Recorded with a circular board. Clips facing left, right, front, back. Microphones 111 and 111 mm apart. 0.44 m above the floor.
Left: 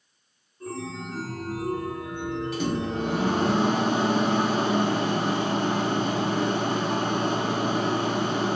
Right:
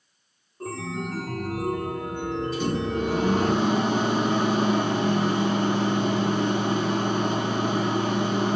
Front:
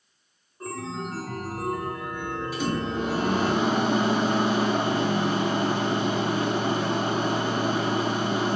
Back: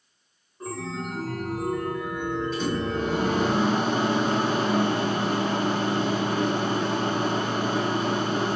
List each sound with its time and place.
0.6 s a chime: 90° right, 0.8 m
2.5 s a microwave: 80° left, 1.6 m